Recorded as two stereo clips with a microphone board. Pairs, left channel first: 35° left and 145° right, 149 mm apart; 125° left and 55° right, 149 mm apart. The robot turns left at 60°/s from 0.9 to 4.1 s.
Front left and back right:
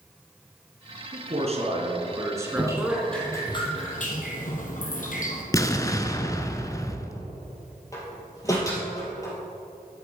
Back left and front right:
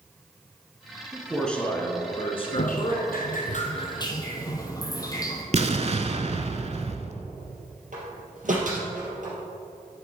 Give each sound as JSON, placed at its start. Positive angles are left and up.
{"t": 1.1, "sound": "a man speaking", "azimuth_deg": -130, "distance_m": 1.7}
{"t": 2.6, "sound": "dripping", "azimuth_deg": 150, "distance_m": 1.3}
{"t": 5.5, "sound": "an explosion", "azimuth_deg": -30, "distance_m": 0.6}
{"t": 7.9, "sound": "a door slam", "azimuth_deg": -35, "distance_m": 3.0}